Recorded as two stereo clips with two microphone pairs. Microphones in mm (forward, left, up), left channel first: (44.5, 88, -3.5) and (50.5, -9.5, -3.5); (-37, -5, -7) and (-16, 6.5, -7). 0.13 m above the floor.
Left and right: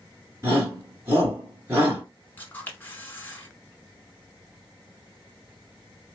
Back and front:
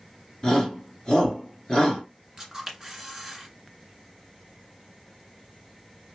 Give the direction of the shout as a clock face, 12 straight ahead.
5 o'clock.